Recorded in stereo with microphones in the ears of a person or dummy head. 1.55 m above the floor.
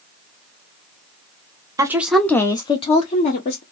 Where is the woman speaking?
15° right (ahead or behind), 0.6 m; by 3.6 s 50° left (ahead or behind), 1.1 m.